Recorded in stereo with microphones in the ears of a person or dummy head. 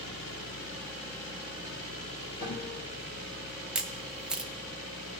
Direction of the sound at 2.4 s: 15° left (ahead or behind).